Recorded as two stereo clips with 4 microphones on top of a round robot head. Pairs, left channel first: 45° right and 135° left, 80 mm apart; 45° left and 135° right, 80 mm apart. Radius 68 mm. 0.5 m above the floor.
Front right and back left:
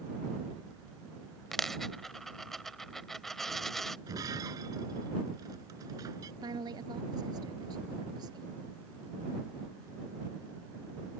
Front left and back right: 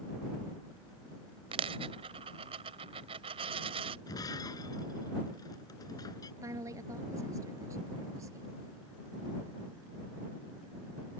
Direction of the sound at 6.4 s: 175° left.